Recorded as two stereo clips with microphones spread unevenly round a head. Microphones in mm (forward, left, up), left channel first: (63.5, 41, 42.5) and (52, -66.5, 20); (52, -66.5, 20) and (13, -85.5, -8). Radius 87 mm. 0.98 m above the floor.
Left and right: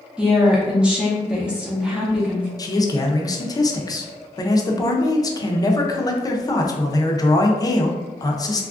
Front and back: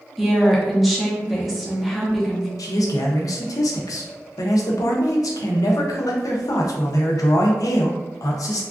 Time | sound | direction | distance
0.2 | a woman speaking | 155° right | 0.7 m
2.6 | a man speaking | 20° left | 0.6 m